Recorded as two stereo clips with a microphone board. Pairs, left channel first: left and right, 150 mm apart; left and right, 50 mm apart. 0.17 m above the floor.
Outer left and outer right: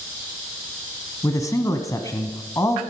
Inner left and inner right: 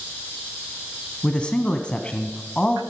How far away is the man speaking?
About 1.1 m.